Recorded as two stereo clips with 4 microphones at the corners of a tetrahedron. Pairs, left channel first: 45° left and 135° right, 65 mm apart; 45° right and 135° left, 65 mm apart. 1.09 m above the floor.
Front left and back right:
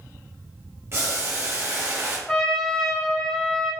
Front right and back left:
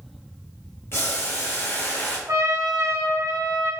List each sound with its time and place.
0.9 s boiling: 90° right, 1.0 m
2.3 s a trumpet: 125° left, 0.6 m